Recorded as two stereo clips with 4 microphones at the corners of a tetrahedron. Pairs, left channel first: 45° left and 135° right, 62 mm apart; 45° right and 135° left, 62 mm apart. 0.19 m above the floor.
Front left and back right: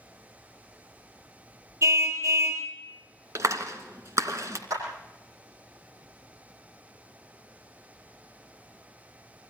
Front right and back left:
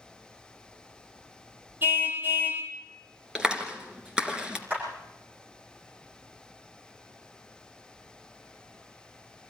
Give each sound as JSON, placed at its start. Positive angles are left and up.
{"t": 1.8, "sound": "a car horn", "azimuth_deg": -170, "distance_m": 3.5}
{"t": 3.4, "sound": "a clap", "azimuth_deg": -150, "distance_m": 2.5}
{"t": 4.7, "sound": "a clap", "azimuth_deg": -165, "distance_m": 8.5}